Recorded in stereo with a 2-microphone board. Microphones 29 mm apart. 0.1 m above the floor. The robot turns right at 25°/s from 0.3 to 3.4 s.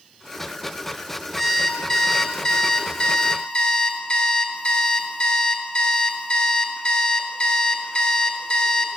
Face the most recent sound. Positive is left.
turn(degrees=60)